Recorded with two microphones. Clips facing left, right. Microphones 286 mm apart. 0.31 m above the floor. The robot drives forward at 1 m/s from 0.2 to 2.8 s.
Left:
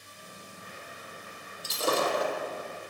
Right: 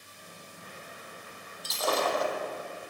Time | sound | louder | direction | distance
1.6 | breaking glass | left 1 dB | 30° left (ahead or behind) | 6 m